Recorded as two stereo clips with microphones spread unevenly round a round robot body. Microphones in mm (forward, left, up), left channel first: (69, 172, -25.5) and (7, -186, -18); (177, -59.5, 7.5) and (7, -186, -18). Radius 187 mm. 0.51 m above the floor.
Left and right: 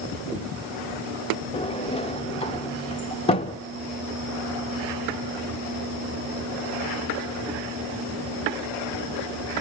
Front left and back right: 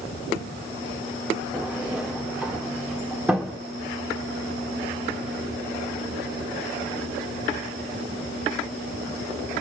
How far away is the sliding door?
About 0.8 m.